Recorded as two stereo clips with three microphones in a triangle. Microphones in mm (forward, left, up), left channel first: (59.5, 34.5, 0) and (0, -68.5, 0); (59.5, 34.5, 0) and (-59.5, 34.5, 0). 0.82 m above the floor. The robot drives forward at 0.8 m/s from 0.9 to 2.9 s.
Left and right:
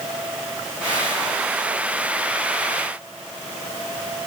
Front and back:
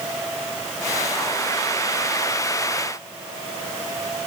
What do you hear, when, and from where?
Only background noise.